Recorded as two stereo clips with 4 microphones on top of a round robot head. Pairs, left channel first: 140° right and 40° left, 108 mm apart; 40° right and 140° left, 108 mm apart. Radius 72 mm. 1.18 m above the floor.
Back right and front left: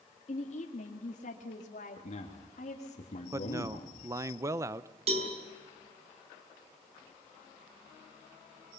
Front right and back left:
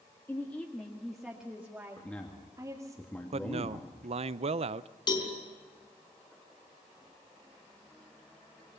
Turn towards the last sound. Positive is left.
turn(degrees=10)